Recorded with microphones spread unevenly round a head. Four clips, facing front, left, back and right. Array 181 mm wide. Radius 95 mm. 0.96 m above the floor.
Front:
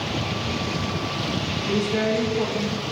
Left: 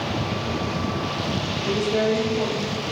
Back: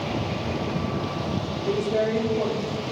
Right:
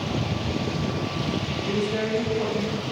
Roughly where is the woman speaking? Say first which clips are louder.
Left 5 dB, even; behind.